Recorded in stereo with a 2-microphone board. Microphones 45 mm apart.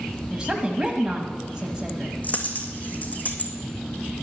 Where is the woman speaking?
15° right (ahead or behind), 1.2 m.